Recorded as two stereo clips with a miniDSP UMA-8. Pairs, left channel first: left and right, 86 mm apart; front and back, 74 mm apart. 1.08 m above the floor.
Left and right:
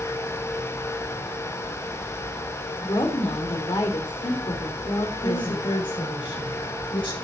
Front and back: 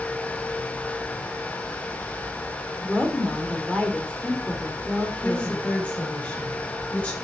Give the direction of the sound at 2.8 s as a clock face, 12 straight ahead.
9 o'clock.